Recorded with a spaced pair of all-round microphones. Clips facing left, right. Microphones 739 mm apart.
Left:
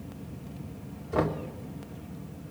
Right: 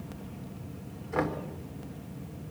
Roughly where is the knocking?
Left.